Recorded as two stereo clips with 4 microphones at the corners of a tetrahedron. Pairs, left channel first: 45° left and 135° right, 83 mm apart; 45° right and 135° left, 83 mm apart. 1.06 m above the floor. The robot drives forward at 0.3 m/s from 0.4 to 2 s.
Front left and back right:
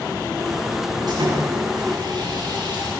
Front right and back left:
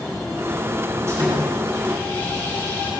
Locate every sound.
1.1 s sawing: 170° right, 10 m